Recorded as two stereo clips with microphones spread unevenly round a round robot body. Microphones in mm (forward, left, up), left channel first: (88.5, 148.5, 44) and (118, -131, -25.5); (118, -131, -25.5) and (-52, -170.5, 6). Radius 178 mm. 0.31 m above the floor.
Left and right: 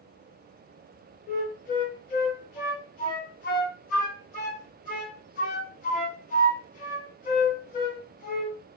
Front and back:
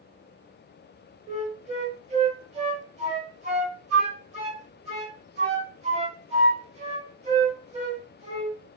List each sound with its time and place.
1.3 s a flute: 160° left, 0.8 m